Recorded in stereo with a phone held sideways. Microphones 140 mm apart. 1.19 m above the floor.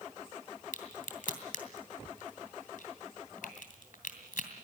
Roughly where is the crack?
Left.